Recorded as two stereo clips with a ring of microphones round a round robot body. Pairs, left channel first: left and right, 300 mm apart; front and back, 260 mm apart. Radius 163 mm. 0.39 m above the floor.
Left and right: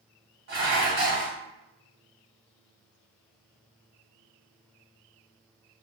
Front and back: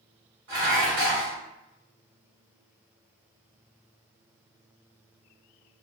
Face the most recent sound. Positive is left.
turn(degrees=-135)